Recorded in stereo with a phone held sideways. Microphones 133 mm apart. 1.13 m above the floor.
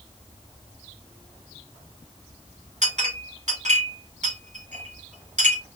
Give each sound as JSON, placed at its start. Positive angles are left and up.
{"t": 2.8, "sound": "a clink", "side_deg": -60, "distance_m": 1.1}